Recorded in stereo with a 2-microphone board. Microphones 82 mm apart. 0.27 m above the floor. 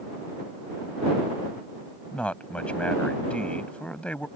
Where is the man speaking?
15° left (ahead or behind).